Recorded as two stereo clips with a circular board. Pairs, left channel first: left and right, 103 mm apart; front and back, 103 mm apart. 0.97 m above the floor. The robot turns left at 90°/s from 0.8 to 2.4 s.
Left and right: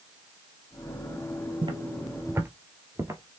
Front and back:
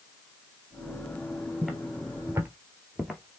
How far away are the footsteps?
About 1.3 m.